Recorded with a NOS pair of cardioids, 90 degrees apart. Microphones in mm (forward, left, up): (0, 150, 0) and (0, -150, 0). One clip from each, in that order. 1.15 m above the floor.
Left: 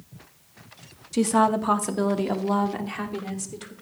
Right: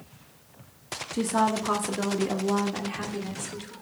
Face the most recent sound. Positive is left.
turn(degrees=20)